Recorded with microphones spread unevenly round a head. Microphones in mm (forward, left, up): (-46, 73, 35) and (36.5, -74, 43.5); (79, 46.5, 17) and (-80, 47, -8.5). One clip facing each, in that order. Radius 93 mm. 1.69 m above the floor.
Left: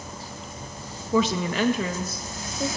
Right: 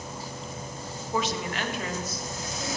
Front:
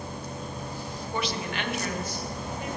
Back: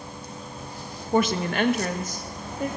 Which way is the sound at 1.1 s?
135° left.